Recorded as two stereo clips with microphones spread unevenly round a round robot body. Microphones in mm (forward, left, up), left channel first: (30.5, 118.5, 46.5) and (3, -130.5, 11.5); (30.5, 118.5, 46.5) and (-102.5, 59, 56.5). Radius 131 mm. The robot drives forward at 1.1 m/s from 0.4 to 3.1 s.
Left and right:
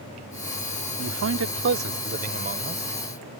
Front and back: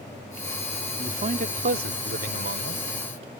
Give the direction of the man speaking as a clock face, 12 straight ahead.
3 o'clock.